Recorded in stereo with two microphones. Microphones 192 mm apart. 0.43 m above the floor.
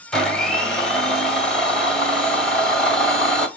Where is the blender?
5° left (ahead or behind), 1.2 m.